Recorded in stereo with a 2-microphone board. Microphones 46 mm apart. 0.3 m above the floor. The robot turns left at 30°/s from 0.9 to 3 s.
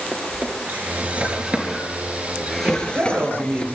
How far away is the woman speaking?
About 7 m.